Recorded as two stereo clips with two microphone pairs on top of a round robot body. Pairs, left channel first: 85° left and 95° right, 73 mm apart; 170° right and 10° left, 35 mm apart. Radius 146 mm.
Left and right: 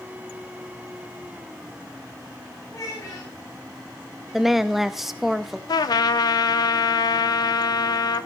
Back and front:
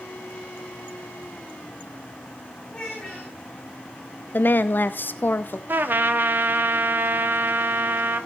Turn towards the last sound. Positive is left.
turn(degrees=45)